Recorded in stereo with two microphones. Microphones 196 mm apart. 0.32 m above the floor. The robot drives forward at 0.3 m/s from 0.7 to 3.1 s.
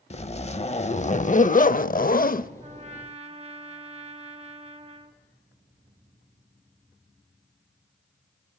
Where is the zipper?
35° left (ahead or behind), 0.7 m; by 2.5 s 45° left (ahead or behind), 0.5 m.